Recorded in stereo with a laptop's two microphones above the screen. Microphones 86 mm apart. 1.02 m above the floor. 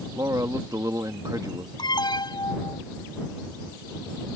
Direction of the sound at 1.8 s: 60° left (ahead or behind).